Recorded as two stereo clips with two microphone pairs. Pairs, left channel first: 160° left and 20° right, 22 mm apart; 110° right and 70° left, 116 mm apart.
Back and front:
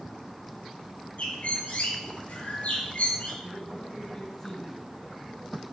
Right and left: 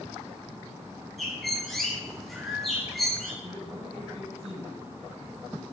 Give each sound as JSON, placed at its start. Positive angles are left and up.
{"t": 1.2, "sound": "a bird", "azimuth_deg": 160, "distance_m": 5.5}
{"t": 3.4, "sound": "a man speaking", "azimuth_deg": 95, "distance_m": 4.5}